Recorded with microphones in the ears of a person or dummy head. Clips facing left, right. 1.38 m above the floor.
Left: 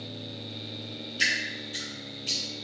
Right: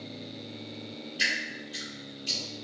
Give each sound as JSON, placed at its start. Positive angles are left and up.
{"t": 1.2, "sound": "dripping", "side_deg": -20, "distance_m": 2.0}